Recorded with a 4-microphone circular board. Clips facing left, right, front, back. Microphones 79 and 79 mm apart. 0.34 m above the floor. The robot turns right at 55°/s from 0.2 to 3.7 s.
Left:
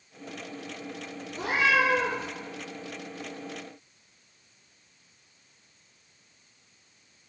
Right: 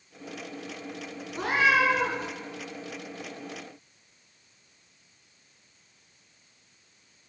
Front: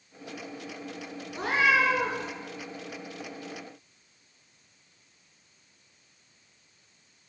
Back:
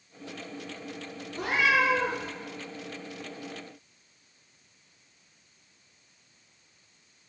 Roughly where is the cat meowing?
Ahead right.